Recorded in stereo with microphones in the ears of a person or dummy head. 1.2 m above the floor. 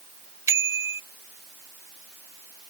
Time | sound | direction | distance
0.5 | a bicycle bell | 20° right (ahead or behind) | ?